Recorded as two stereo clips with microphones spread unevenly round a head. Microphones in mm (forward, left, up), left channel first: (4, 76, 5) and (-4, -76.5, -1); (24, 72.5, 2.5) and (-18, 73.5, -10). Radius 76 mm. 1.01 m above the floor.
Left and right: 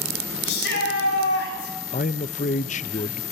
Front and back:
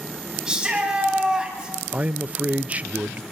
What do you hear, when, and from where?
0.5 s a shout: 105° left, 9 m
1.9 s a man speaking: 130° left, 0.6 m